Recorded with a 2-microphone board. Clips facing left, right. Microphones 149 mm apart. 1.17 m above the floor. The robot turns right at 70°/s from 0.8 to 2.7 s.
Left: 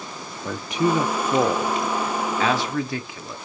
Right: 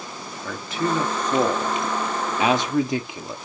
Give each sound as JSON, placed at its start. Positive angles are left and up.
{"t": 0.5, "sound": "a man speaking", "side_deg": 15, "distance_m": 0.5}